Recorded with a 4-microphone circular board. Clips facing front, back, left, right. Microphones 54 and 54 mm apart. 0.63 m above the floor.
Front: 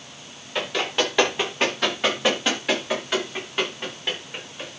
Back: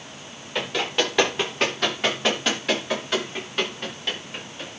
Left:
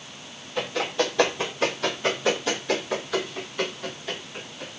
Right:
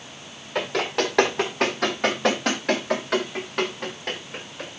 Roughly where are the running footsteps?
Right.